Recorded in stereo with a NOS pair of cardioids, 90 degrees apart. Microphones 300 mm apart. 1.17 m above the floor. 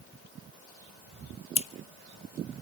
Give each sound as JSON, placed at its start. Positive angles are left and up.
{"t": 1.6, "sound": "scissors", "azimuth_deg": 20, "distance_m": 0.9}